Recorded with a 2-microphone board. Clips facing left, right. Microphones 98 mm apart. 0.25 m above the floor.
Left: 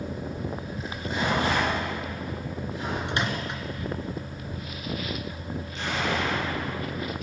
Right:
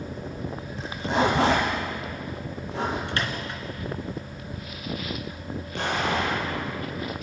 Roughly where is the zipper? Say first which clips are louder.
Right 7 dB; right.